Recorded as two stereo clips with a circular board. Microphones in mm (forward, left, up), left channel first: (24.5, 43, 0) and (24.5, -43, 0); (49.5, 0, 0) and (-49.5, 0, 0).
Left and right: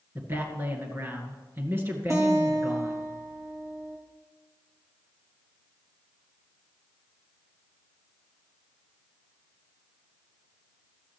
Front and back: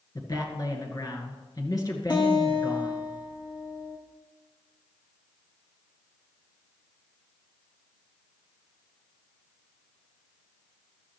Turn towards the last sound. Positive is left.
turn(degrees=-40)